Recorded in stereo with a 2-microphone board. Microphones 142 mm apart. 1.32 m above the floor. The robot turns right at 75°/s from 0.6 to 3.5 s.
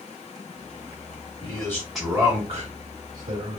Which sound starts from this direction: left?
A man speaking, at 1.4 s.